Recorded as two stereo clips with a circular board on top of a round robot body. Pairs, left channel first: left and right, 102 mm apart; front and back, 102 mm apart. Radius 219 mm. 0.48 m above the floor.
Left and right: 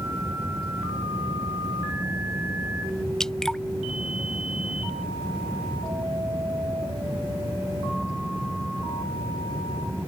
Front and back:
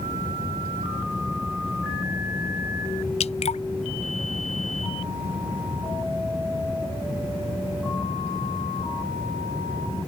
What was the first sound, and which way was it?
Dripping, 5° left.